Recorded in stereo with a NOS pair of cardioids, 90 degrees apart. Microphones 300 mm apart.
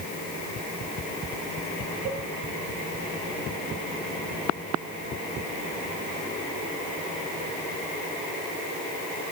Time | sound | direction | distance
2.0 | a cowbell | 60° right | 9.5 m